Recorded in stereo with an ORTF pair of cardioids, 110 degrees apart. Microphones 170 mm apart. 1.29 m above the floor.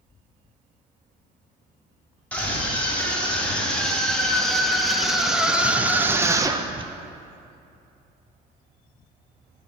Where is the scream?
10° left, 3 m; by 6.9 s 35° right, 0.7 m.